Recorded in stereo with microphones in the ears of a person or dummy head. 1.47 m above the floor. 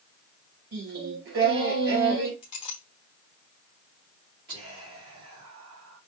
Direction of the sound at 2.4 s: 35° left (ahead or behind).